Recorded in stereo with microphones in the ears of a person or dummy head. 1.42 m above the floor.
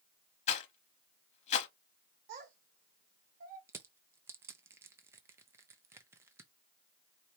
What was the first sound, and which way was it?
A rattle, 40° left (ahead or behind).